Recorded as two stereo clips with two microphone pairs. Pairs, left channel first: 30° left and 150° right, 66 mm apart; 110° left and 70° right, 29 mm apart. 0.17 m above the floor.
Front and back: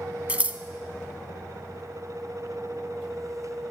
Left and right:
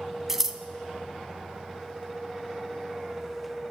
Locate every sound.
0.3 s scissors: 125° right, 0.5 m